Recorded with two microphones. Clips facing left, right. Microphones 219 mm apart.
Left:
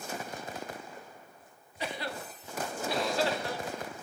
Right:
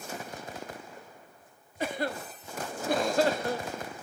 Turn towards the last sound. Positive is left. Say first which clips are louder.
# right 5 dB
turn(degrees=-50)  # may be behind; listen again after turning